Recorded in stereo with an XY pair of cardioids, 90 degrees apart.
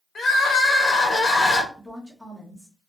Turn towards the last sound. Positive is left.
turn(degrees=-5)